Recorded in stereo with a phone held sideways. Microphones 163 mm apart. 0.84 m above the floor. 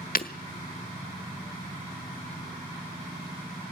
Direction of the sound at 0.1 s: 65° left (ahead or behind).